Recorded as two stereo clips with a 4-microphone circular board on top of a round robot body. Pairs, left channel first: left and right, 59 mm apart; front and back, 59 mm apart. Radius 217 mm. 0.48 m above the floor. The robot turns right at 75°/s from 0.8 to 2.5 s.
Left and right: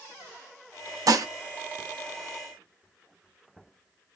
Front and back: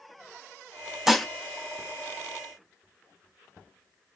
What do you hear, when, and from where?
1.1 s dishes clattering: 95° right, 0.7 m; by 1.3 s 80° right, 0.7 m